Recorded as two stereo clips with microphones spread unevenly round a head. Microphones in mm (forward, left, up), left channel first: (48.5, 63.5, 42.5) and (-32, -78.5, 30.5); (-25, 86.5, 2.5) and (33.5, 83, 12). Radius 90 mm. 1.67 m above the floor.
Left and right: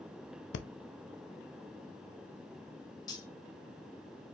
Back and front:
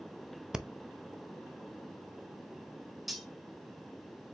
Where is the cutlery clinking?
55° left, 0.9 m.